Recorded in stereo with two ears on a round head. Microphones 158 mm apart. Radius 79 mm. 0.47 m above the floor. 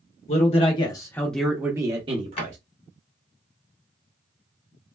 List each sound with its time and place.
0.3 s a man speaking: 40° left (ahead or behind), 1.0 m; by 2.6 s 40° right (ahead or behind), 0.9 m
2.4 s a drawer: 35° left (ahead or behind), 1.4 m